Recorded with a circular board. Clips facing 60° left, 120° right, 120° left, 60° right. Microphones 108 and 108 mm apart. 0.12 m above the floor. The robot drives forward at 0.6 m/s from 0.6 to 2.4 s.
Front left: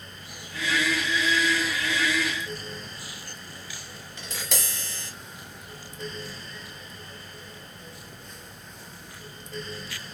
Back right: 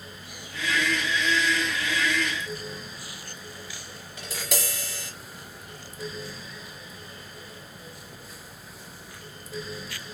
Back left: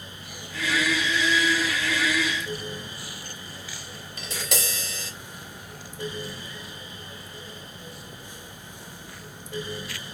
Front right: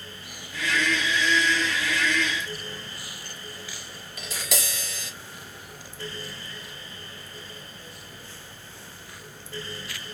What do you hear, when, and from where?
4.2 s tapping: 160° left, 2 m